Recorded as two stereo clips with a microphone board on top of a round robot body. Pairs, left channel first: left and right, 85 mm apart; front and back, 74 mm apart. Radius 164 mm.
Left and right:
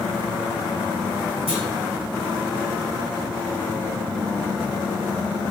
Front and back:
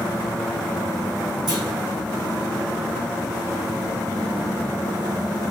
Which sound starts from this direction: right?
A clunk, at 1.5 s.